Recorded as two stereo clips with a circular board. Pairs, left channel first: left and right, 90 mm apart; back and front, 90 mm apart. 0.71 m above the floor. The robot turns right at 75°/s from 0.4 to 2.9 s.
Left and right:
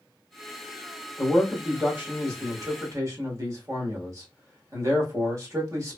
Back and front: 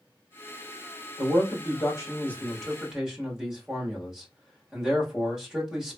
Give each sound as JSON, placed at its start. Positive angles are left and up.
{"t": 1.2, "sound": "a man speaking", "azimuth_deg": 155, "distance_m": 1.2}